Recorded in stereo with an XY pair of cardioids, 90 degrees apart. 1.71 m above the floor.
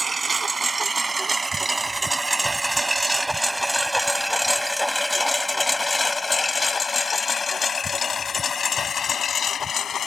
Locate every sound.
0.0 s a lawn mower: 30° right; by 10.1 s 65° left